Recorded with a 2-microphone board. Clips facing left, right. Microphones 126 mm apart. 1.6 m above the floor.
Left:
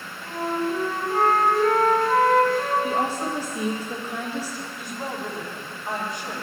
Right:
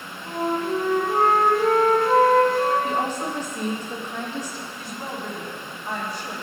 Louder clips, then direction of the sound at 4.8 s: Left 2 dB; 20° left (ahead or behind).